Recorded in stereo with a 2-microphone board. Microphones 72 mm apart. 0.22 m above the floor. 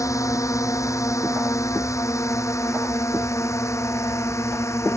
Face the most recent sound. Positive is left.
turn(degrees=40)  # may be behind; listen again after turning